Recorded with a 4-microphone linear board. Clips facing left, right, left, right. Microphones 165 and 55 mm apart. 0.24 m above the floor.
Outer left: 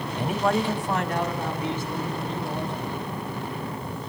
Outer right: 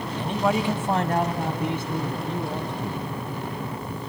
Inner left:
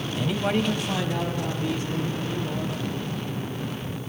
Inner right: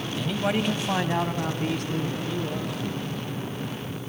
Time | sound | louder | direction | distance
0.1 | a man speaking | even, inner left 1 dB | 20° left (ahead or behind) | 1.2 m